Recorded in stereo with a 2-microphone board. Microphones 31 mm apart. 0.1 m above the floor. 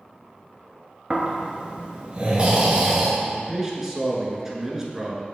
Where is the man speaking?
15° right (ahead or behind), 1.1 m.